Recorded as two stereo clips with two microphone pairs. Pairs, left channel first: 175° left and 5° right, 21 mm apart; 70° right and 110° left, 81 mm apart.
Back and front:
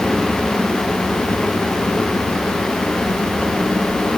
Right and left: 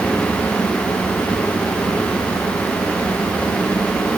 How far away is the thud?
I don't hear a thud.